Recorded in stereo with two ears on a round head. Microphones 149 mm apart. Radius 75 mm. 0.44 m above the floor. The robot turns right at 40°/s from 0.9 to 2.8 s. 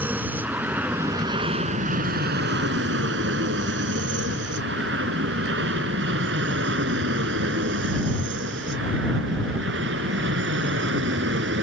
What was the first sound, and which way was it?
An aircraft, 10° right (ahead or behind).